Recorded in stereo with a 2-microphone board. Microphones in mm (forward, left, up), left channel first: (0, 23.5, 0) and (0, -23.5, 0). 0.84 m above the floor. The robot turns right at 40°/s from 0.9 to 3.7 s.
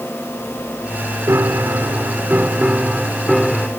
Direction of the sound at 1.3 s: 90° right.